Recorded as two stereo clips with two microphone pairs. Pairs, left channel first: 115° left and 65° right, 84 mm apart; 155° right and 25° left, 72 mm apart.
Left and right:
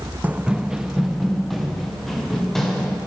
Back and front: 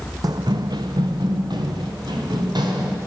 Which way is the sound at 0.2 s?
Straight ahead.